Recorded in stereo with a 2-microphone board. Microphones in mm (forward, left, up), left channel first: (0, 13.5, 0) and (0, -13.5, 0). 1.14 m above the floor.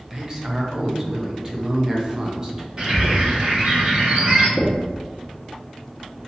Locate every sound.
0.1 s a man speaking: 25° right (ahead or behind), 0.7 m
2.8 s a bird: 40° right (ahead or behind), 1.2 m
4.6 s knocking: 40° left (ahead or behind), 0.7 m